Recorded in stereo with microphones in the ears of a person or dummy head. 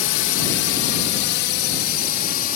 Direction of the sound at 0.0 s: 65° left (ahead or behind).